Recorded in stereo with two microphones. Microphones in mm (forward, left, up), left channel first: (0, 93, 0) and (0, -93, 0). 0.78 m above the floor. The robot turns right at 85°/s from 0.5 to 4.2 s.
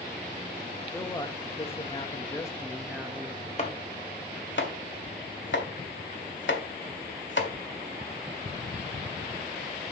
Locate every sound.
0.9 s a man speaking: 20° left, 1.2 m; by 3.5 s 120° right, 1.2 m
3.6 s chopping: 40° left (ahead or behind), 1.7 m; by 7.5 s 85° left, 1.7 m